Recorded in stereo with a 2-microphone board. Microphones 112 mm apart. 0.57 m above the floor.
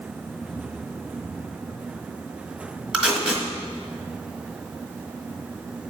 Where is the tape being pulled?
10° right (ahead or behind), 1.6 m.